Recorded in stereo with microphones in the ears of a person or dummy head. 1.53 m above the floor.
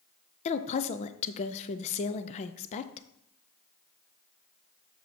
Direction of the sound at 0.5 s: 35° left (ahead or behind).